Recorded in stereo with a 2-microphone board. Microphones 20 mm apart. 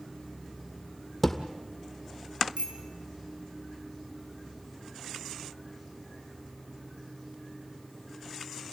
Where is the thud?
15° left (ahead or behind), 2 m.